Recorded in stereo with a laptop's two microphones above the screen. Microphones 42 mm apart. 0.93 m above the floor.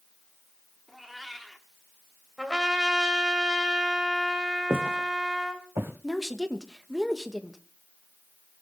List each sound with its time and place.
0.9 s a cat meowing: centre (ahead or behind), 1.1 m
2.4 s a trumpet: 10° right (ahead or behind), 1.8 m
4.7 s footsteps: 70° right (ahead or behind), 2.5 m
6.0 s a woman speaking: centre (ahead or behind), 1.0 m